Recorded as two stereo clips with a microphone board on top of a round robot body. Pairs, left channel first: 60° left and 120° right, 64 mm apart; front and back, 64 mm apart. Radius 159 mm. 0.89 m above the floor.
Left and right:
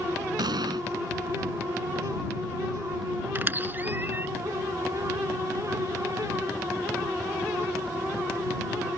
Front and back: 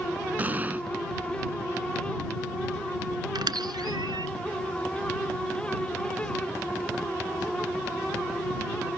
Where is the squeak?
Straight behind.